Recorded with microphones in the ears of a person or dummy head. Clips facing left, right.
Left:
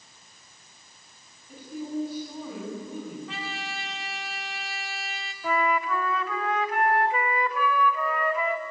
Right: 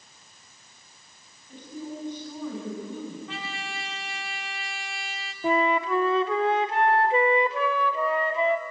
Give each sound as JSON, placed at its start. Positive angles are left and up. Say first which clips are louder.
{"t": 1.5, "sound": "a woman speaking", "louder": "left 4 dB", "side_deg": 5, "distance_m": 9.5}
{"t": 3.3, "sound": "a trumpet", "louder": "even", "side_deg": 0, "distance_m": 0.9}
{"t": 5.4, "sound": "a flute", "louder": "right 3 dB", "side_deg": -20, "distance_m": 0.7}